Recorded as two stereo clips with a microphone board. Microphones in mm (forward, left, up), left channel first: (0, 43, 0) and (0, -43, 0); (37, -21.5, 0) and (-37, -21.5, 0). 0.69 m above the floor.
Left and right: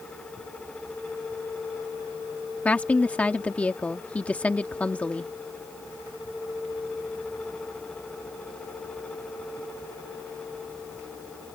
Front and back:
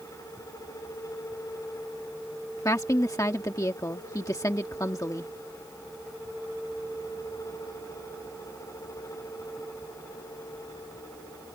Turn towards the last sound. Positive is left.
turn(degrees=20)